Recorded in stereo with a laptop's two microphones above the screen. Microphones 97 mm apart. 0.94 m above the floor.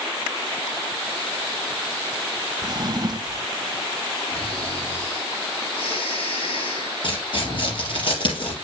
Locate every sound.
2.6 s a drawer: 40° right (ahead or behind), 0.6 m
4.3 s snoring: 60° left (ahead or behind), 6 m
7.0 s tearing paper: 50° left (ahead or behind), 5 m